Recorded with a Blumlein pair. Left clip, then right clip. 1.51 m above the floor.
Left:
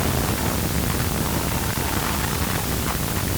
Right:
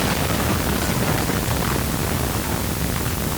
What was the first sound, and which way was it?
Only background noise.